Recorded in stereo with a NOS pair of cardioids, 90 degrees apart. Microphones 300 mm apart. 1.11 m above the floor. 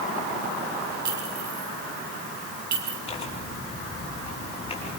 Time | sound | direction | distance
1.1 | a clink | 65° right | 5.5 m
3.1 | tearing paper | 20° left | 6.5 m